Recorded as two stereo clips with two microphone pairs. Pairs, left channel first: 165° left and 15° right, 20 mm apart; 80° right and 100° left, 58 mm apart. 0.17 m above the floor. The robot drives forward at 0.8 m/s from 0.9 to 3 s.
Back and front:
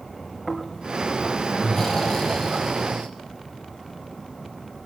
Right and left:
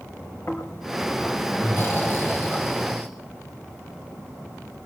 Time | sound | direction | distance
0.5 | snoring | 110° right | 3 m